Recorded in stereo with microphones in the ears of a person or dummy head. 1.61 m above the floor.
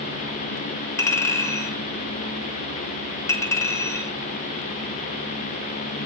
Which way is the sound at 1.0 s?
15° left (ahead or behind).